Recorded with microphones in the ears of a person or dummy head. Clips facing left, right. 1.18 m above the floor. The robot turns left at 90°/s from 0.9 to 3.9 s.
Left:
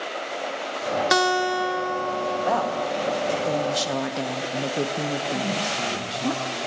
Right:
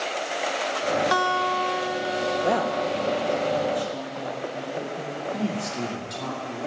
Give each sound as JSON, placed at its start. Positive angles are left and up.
{"t": 1.1, "sound": "a guitar", "azimuth_deg": 60, "distance_m": 0.6}
{"t": 2.4, "sound": "a woman speaking", "side_deg": -30, "distance_m": 0.9}
{"t": 5.3, "sound": "a man speaking", "side_deg": -35, "distance_m": 2.5}